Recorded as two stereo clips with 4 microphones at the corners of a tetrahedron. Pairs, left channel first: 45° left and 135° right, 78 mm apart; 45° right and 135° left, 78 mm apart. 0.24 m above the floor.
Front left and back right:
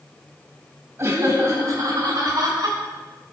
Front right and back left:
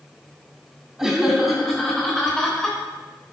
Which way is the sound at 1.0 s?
145° right.